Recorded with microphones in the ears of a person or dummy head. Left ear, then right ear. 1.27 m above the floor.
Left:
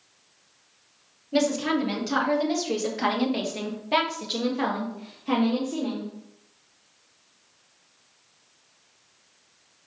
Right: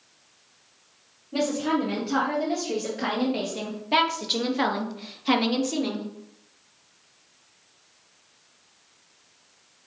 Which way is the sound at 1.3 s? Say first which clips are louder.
Left 1 dB; 45° left (ahead or behind).